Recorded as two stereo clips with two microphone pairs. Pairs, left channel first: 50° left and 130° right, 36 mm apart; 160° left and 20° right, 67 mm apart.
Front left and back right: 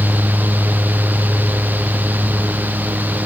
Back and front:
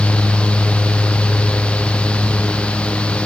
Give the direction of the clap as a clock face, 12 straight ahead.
I don't hear a clap.